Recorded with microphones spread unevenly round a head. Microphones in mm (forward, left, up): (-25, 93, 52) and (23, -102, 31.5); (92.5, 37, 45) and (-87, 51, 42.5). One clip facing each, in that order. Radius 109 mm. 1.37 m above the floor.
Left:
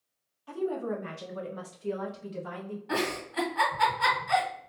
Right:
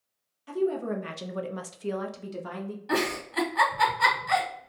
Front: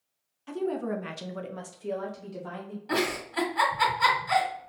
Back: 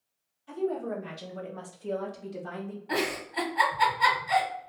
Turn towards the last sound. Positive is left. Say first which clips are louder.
# right 3 dB, front 2 dB
turn(degrees=-45)